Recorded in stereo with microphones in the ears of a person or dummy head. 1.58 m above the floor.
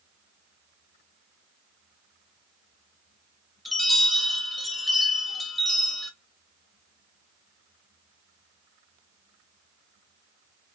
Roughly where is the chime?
Centre.